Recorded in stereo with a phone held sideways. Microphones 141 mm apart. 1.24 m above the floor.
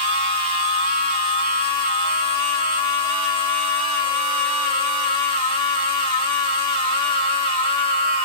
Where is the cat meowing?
I don't hear a cat meowing.